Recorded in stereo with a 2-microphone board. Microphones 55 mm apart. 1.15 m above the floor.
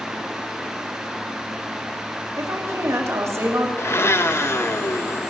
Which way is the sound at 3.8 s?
50° left (ahead or behind).